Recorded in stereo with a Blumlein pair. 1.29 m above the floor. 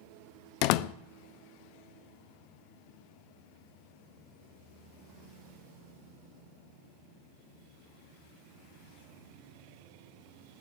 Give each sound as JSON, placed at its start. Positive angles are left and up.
{"t": 0.6, "sound": "a door slam", "azimuth_deg": 45, "distance_m": 0.7}